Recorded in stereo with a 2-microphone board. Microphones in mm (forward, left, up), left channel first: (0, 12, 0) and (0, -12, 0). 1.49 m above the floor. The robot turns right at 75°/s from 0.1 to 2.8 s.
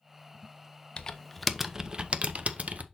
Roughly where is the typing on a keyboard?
Behind left.